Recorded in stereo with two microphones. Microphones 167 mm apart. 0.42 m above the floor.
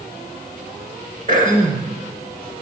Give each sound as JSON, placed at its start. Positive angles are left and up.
{"t": 1.3, "sound": "throat clearing", "side_deg": -55, "distance_m": 2.0}